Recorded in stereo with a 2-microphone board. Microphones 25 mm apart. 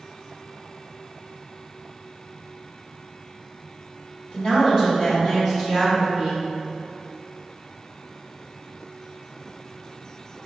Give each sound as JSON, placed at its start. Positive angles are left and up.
{"t": 4.3, "sound": "a woman speaking", "side_deg": 35, "distance_m": 1.8}